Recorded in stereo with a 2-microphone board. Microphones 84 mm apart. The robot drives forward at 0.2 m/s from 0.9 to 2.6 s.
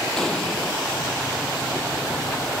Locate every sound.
0.2 s an explosion: 5° left (ahead or behind)